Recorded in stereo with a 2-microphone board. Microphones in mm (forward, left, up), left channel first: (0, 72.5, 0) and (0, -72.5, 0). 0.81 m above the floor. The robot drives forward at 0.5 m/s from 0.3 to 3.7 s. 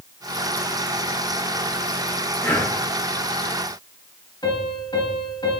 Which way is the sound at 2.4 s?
15° left (ahead or behind).